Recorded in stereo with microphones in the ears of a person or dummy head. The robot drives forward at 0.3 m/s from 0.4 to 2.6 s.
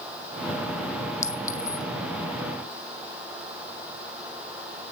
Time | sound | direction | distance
1.2 | a clink | 15° left (ahead or behind) | 1.0 m